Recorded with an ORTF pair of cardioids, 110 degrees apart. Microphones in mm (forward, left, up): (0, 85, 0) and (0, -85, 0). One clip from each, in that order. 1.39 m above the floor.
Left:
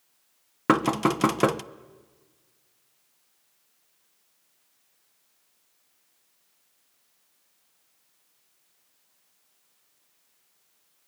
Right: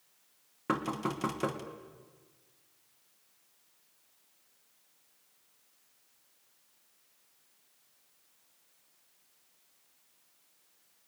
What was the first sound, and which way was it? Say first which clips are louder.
Knocking: left 11 dB; 55° left.